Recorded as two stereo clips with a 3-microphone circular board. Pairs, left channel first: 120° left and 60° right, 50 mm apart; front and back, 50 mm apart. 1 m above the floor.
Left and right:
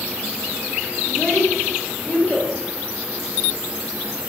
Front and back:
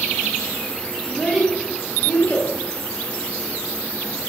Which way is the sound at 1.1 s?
105° left.